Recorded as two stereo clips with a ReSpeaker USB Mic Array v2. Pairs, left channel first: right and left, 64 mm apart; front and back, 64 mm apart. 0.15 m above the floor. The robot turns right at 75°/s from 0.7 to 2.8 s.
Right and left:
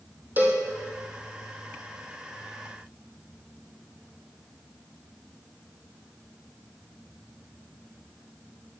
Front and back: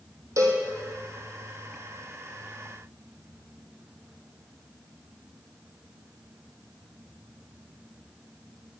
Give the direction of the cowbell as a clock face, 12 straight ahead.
7 o'clock.